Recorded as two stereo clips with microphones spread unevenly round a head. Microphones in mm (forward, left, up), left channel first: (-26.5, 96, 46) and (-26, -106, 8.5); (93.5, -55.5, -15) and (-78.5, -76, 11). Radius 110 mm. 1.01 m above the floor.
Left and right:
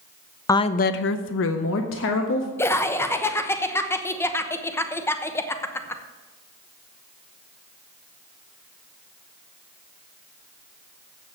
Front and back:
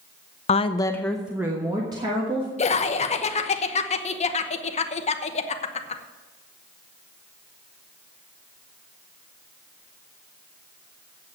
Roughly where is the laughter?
Ahead.